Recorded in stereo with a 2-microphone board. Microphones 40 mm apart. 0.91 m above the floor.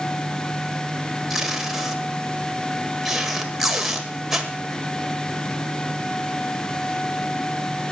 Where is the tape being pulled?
5° right (ahead or behind), 1.6 m.